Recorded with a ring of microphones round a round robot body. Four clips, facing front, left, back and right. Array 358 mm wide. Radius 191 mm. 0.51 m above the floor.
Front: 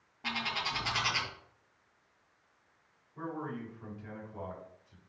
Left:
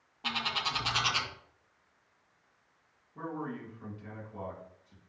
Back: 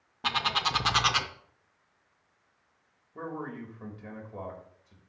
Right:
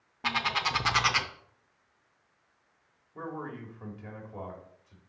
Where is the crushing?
I don't hear crushing.